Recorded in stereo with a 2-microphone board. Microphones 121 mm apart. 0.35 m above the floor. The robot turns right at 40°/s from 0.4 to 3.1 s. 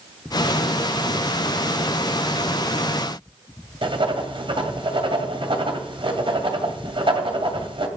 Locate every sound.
3.8 s writing: 45° right (ahead or behind), 2 m